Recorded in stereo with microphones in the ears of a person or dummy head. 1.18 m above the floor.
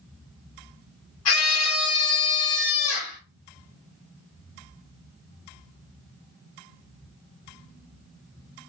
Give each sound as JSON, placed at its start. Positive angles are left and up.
{"t": 1.2, "sound": "a scream", "side_deg": 75, "distance_m": 3.5}